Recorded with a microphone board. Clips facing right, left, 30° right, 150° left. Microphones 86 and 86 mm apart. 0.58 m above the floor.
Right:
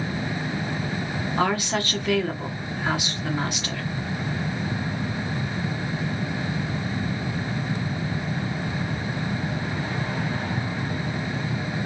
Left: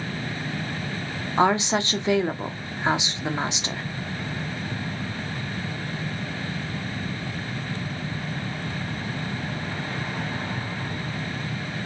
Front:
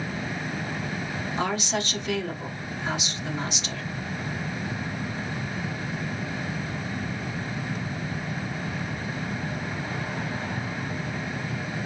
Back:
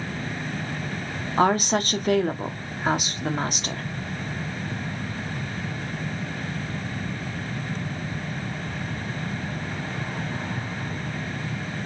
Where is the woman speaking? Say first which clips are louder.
Left 4 dB, back 8 dB; 150° left, 0.9 m.